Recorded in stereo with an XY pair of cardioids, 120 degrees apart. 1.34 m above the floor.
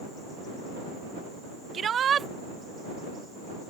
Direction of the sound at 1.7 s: 40° right.